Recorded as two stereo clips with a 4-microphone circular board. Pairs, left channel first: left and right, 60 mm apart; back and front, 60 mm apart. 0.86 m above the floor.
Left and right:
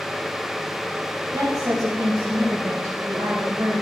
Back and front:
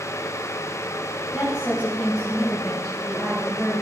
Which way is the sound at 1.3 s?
90° right.